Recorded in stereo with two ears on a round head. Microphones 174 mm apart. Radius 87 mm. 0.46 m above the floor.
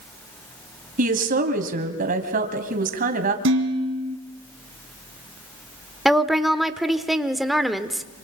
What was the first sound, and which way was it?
A woman speaking, 45° right (ahead or behind).